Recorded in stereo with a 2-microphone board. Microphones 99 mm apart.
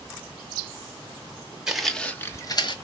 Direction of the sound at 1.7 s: 5° right (ahead or behind).